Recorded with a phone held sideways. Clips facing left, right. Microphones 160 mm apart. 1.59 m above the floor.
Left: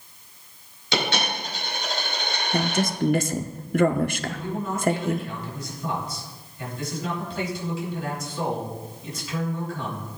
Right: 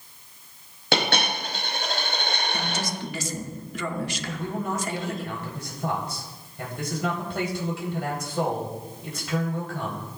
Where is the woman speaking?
55° left (ahead or behind), 0.8 m.